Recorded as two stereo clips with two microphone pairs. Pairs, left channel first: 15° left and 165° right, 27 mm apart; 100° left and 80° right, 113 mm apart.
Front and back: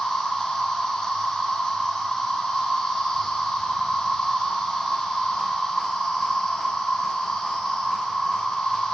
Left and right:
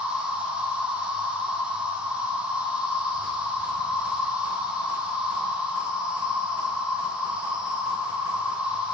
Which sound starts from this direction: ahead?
An insect, at 0.0 s.